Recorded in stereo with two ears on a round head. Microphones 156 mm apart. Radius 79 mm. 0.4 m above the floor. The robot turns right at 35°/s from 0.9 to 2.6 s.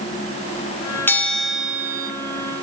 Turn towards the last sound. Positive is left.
turn(degrees=-140)